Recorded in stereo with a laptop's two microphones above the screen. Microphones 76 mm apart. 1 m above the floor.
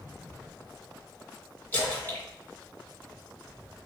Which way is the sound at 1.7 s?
25° left (ahead or behind).